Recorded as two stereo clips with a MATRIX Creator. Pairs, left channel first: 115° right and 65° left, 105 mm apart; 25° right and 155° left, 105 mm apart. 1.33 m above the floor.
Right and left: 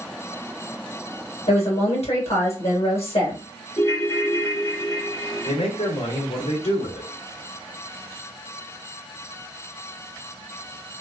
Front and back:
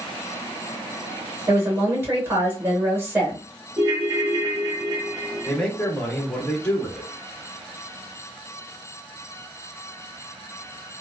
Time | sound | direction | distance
1.5 | a woman speaking | 130° right | 1.6 m
3.8 | a ringtone | 160° right | 0.9 m
5.5 | a man speaking | 105° right | 1.3 m